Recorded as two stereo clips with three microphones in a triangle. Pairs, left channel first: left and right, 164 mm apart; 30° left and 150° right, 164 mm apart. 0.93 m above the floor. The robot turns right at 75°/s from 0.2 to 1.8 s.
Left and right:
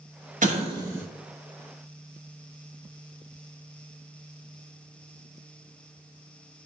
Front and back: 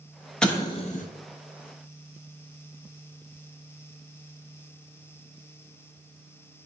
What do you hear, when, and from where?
0.4 s an explosion: 55° right, 0.5 m; by 1.0 s 10° right, 0.5 m